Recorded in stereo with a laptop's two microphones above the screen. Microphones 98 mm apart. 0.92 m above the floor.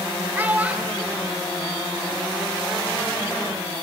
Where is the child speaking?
20° right (ahead or behind), 2 m; by 2.3 s centre (ahead or behind), 3 m.